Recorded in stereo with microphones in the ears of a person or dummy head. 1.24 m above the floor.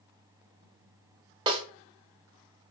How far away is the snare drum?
About 0.9 m.